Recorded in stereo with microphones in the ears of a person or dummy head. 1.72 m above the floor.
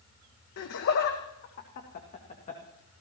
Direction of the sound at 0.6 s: 65° left (ahead or behind).